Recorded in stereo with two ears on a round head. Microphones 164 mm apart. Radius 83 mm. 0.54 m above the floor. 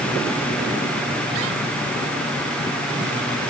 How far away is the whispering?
No whispering in this recording.